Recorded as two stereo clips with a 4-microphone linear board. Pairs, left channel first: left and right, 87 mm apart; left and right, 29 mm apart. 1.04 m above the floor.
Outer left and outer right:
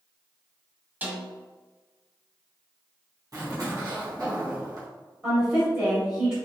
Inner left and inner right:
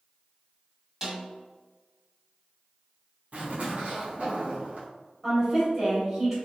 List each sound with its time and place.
1.0 s a snare drum: 20° right (ahead or behind), 0.9 m
3.3 s a zipper: 45° right (ahead or behind), 1.1 m
5.2 s a woman speaking: 15° right (ahead or behind), 1.0 m